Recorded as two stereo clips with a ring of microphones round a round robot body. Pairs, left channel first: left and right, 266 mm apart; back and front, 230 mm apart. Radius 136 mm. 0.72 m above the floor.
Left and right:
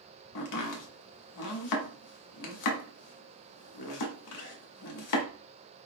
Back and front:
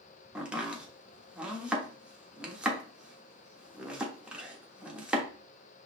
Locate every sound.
0.3 s chopping: 85° left, 1.2 m